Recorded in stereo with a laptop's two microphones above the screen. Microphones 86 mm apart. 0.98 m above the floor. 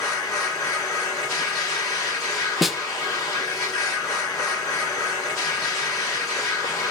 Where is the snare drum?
Centre (ahead or behind), 0.8 m.